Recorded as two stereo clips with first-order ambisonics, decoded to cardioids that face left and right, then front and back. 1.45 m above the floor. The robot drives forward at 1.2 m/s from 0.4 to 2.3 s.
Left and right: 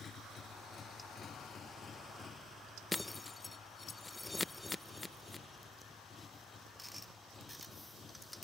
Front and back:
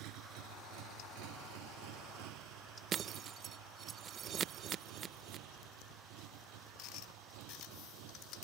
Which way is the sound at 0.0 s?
155° left.